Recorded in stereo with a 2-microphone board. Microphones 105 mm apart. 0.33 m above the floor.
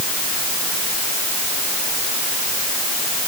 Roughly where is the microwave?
No microwave in this recording.